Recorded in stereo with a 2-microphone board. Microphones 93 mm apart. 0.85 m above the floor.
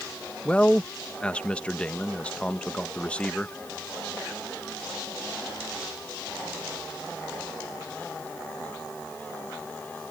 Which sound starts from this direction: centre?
A man speaking, at 0.5 s.